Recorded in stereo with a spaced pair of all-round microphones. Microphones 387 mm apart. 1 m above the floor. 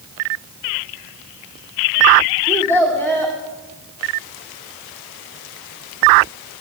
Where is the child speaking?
5° left (ahead or behind), 1.9 m.